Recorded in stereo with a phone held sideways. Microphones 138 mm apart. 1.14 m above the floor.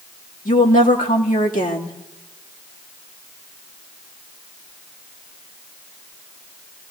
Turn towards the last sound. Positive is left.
turn(degrees=75)  # may be behind; listen again after turning